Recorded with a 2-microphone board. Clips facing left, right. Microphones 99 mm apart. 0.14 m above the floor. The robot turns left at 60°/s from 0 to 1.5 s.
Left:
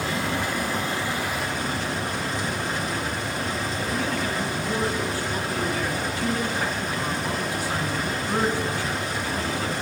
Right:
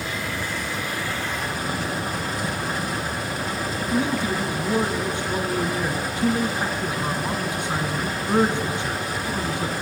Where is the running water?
85° left, 4 m; by 9.8 s 5° right, 4 m.